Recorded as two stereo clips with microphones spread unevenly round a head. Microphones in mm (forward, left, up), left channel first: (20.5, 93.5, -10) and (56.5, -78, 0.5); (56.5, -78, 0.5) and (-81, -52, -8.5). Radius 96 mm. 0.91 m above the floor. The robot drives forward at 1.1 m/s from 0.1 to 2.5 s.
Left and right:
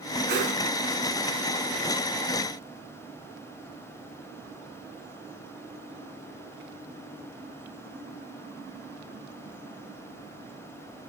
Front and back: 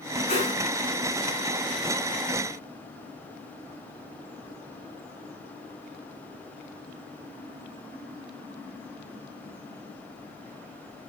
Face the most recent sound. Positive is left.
turn(degrees=-70)